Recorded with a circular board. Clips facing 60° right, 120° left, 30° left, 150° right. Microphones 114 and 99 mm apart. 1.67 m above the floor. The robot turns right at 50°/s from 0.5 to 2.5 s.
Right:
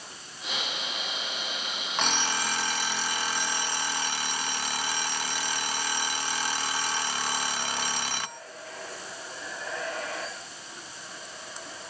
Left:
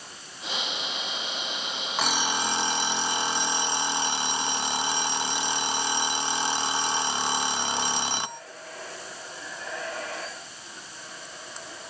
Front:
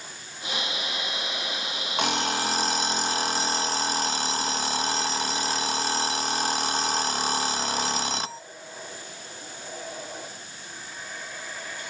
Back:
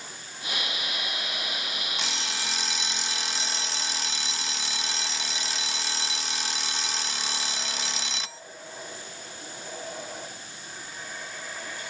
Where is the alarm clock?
35° left; by 8.4 s 60° left.